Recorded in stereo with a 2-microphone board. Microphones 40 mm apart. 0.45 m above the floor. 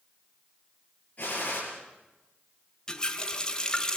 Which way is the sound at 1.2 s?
40° left (ahead or behind).